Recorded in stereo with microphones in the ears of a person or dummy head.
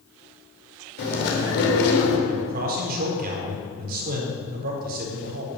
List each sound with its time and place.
1.0 s chewing: 60° left (ahead or behind), 3 m
2.3 s a man speaking: 50° right (ahead or behind), 4 m